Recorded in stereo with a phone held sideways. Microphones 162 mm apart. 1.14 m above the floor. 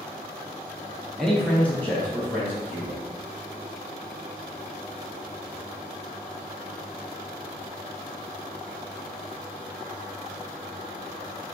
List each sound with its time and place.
1.2 s a man speaking: centre (ahead or behind), 0.6 m; by 3.0 s 15° left (ahead or behind), 1.1 m